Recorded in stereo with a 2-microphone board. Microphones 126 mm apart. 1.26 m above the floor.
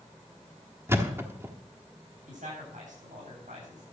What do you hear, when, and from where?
0.9 s a thud: 20° right (ahead or behind), 1.3 m
2.3 s a man speaking: 80° right, 8.5 m